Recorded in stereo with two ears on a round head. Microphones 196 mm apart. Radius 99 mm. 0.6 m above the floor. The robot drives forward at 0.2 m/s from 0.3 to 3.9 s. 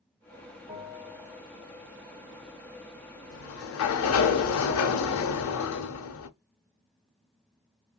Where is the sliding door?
60° left (ahead or behind), 0.5 m; by 6.3 s 70° left (ahead or behind), 0.5 m.